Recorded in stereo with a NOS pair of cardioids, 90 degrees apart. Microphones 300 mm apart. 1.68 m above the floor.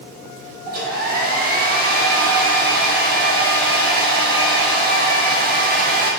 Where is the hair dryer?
30° right, 0.7 m.